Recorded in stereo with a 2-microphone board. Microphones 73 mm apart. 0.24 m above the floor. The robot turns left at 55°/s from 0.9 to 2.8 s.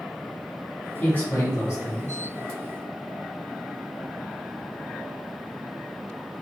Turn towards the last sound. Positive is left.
turn(degrees=30)